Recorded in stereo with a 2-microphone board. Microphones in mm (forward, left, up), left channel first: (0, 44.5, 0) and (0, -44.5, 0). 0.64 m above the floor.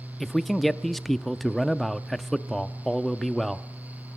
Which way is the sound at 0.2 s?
Centre (ahead or behind).